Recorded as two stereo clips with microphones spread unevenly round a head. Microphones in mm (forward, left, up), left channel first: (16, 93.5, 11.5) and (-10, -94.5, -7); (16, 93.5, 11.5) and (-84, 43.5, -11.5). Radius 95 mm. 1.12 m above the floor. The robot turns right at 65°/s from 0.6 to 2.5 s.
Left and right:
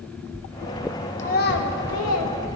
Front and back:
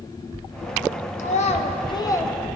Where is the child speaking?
25° left, 0.9 m; by 2.3 s 100° left, 0.9 m.